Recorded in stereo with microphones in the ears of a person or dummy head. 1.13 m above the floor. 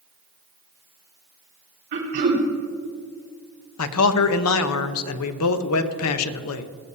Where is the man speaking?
80° left, 0.8 m.